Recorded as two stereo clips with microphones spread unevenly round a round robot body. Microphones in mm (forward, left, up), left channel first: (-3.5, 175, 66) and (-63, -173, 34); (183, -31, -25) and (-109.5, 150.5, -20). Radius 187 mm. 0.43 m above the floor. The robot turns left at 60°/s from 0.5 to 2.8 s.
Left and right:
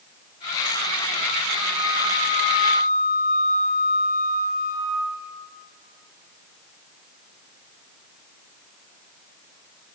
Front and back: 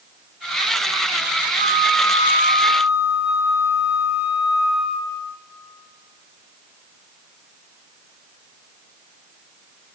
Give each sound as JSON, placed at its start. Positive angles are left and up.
{"t": 1.6, "sound": "a flute", "azimuth_deg": 85, "distance_m": 4.0}